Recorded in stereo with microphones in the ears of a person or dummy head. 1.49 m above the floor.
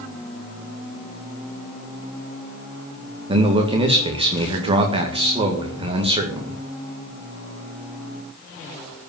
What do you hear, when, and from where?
3.3 s a man speaking: 30° right (ahead or behind), 1.9 m